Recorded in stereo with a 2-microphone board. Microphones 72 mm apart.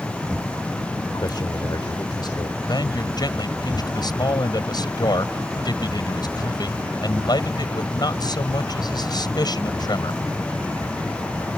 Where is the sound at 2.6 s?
75° left (ahead or behind).